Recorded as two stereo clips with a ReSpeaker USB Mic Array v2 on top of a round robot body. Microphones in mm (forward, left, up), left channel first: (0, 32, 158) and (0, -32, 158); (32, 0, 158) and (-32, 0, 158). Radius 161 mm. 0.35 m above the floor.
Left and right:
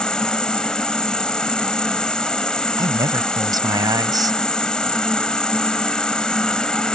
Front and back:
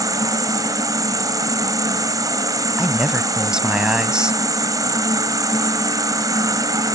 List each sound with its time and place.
0.0 s an insect: 165° left
2.8 s a man speaking: 100° right